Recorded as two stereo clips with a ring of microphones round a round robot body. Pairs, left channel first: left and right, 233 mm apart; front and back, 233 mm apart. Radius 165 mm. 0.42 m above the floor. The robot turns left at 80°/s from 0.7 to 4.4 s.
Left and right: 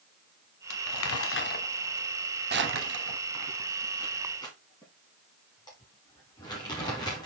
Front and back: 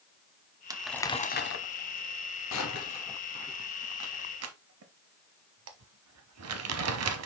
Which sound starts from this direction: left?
Crumpling, at 0.7 s.